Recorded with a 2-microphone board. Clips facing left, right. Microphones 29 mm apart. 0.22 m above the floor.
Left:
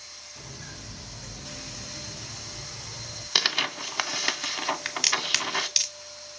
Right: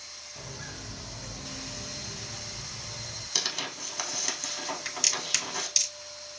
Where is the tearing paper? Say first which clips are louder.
Left 8 dB; 50° left (ahead or behind), 0.6 m.